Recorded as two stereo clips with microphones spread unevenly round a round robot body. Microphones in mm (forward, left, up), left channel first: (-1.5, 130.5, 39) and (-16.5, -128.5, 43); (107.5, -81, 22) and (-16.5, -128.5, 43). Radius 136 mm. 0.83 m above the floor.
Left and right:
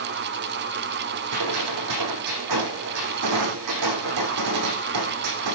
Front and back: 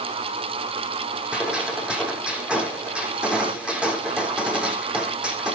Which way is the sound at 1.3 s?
80° right.